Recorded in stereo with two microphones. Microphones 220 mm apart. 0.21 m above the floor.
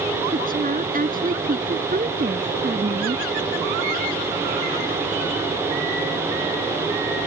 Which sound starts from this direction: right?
A woman speaking, at 0.3 s.